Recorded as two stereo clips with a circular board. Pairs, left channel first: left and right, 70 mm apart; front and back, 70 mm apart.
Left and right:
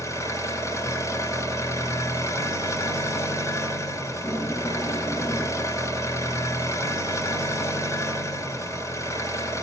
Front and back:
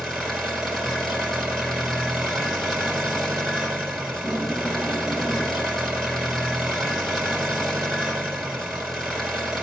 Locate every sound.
0.0 s an engine running: 85° left, 1.9 m
4.1 s tape being pulled: 70° left, 3 m